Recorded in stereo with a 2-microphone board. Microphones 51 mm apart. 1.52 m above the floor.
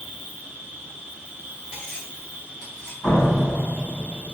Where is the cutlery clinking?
20° left (ahead or behind), 1.2 m.